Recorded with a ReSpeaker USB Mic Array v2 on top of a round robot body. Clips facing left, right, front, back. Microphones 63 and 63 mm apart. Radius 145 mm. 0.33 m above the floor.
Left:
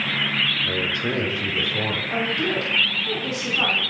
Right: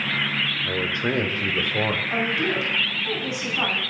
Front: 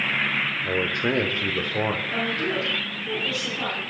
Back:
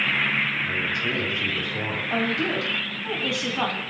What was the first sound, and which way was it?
A man speaking, 20° right.